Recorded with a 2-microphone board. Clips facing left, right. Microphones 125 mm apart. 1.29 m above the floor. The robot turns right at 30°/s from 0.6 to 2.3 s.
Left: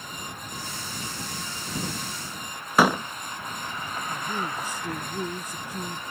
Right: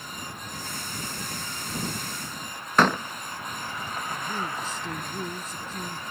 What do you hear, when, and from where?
2.8 s a door slam: 10° left (ahead or behind)
4.1 s a man speaking: 15° left (ahead or behind)